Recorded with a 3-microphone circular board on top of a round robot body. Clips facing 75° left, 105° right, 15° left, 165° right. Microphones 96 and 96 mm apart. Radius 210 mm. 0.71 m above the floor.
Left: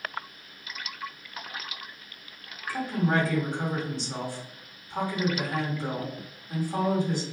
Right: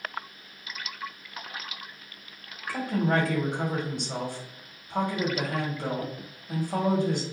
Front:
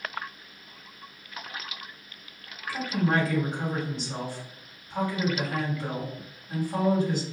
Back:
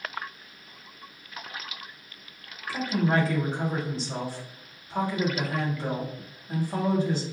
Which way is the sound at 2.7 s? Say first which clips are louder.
Right 1 dB, back 1 dB; 115° right.